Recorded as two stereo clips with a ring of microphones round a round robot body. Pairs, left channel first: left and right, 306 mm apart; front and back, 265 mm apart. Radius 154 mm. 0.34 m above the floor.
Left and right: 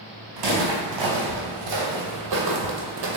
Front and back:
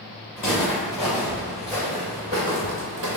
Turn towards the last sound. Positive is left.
turn(degrees=-145)